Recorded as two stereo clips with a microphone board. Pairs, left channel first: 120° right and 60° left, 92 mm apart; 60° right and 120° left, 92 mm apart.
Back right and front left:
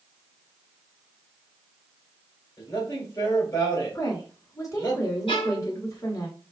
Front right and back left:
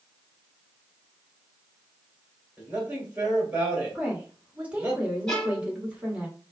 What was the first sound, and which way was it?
A man speaking, 165° right.